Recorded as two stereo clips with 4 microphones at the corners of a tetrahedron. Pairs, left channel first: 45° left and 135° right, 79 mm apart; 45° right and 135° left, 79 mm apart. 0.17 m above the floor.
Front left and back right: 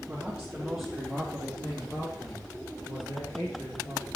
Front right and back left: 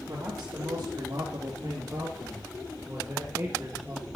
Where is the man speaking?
155° left, 3 m; by 4.1 s 70° left, 4 m.